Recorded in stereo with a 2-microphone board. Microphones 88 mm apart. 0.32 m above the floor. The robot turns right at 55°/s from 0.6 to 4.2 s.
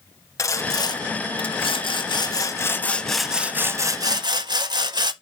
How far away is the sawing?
About 0.6 m.